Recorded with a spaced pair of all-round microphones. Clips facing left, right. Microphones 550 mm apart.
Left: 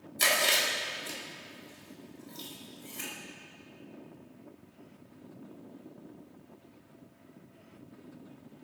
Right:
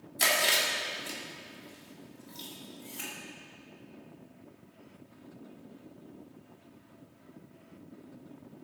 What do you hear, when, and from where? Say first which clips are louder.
0.2 s chewing: even; 5° right (ahead or behind), 2.5 m